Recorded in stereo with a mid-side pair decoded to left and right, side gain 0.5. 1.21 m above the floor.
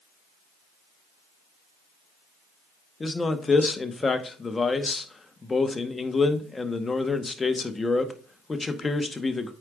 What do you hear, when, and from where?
3.0 s a man speaking: 25° left, 1.0 m